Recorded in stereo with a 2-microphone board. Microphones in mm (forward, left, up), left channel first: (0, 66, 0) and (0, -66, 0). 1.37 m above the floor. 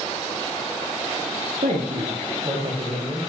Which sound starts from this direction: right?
A man speaking, at 1.6 s.